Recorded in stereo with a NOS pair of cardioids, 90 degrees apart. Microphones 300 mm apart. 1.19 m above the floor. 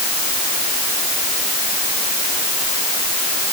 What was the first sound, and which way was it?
Only background noise.